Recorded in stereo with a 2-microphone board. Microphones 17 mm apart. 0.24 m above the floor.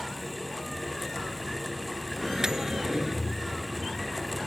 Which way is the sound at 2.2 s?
35° right (ahead or behind).